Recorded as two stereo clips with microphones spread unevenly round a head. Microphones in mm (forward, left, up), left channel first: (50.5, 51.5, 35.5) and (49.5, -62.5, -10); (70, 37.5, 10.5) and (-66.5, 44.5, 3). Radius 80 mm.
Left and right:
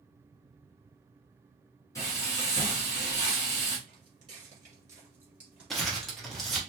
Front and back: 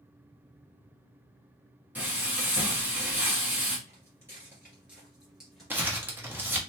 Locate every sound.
1.9 s frying: 100° left, 1.1 m
3.9 s footsteps: 135° right, 1.6 m; by 6.7 s 65° left, 1.8 m
5.7 s crumpling: 110° left, 0.6 m